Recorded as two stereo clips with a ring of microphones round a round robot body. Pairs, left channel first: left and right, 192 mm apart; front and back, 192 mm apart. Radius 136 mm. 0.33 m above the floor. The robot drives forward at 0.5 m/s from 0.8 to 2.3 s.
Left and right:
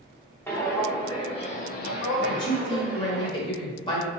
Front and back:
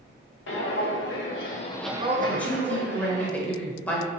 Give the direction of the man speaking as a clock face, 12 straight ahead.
10 o'clock.